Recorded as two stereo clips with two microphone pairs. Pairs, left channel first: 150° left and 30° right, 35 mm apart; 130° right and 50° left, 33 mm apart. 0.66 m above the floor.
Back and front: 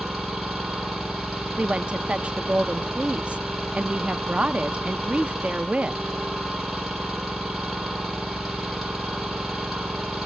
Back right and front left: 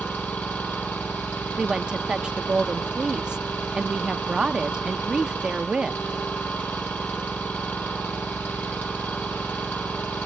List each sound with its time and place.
0.0 s an engine running: 120° right, 7.5 m
1.6 s a woman speaking: straight ahead, 0.6 m